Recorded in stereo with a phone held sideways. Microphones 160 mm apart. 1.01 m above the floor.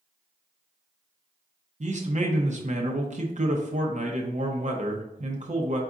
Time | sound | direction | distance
1.8 | a man speaking | 50° right (ahead or behind) | 0.6 m